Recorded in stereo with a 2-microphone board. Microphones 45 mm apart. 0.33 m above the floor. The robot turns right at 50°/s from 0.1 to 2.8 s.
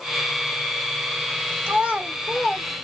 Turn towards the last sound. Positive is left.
turn(degrees=10)  # may be behind; listen again after turning